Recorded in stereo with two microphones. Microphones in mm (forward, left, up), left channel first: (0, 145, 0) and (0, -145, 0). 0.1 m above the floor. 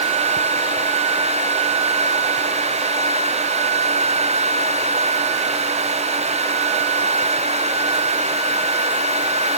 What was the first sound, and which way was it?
Only background noise.